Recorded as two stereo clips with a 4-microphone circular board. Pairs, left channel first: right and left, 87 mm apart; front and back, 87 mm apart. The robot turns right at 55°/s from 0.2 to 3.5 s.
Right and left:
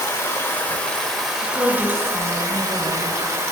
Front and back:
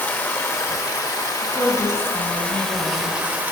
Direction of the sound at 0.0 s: 55° right.